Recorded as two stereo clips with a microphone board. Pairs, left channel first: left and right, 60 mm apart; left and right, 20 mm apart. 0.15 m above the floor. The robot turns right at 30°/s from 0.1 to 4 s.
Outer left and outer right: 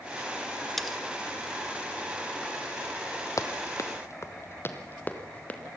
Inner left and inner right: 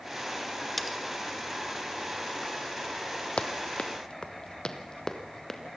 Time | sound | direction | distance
0.8 | cutlery clinking | centre (ahead or behind) | 1.2 m
3.4 | running footsteps | 60° left (ahead or behind) | 1.5 m